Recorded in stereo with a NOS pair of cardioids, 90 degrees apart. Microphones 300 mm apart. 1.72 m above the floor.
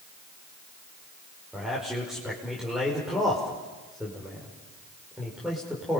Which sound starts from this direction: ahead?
A man speaking, at 1.5 s.